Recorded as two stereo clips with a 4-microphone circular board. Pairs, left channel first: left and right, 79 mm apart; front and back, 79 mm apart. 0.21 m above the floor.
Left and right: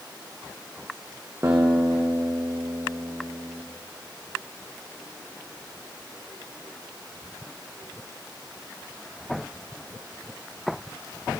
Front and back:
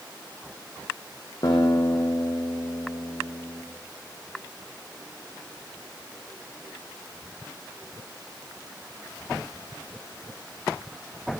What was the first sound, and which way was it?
A guitar, 35° right.